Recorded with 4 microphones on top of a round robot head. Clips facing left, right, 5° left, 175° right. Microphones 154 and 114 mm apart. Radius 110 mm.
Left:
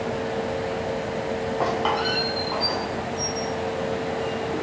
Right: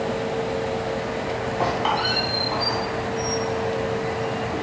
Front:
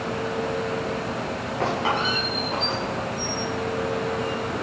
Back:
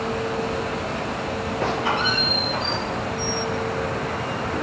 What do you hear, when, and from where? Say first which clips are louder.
1.6 s a squeak: right 1 dB, even; 5° right, 2.5 m